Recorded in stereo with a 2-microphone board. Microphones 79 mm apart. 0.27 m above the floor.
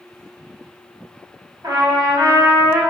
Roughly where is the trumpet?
Right.